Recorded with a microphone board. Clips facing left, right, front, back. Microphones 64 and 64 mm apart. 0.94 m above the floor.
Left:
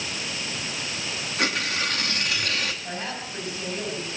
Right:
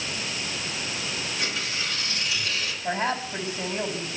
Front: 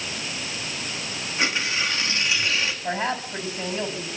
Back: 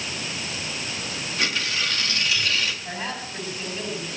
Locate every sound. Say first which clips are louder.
1.4 s tearing paper: left 8 dB, front 2 dB; 65° left, 2.0 m
2.8 s a woman speaking: right 6 dB, front 5 dB; 30° right, 5.5 m